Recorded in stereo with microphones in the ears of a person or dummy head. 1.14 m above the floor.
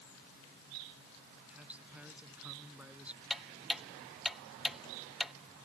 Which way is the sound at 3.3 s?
Centre (ahead or behind).